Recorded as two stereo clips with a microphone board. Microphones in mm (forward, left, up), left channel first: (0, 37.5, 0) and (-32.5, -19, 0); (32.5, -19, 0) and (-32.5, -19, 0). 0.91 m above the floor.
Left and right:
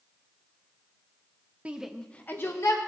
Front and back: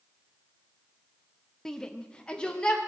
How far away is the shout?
About 0.9 m.